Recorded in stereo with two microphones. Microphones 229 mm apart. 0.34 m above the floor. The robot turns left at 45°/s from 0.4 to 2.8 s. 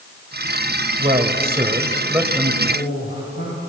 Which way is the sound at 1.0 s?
110° right.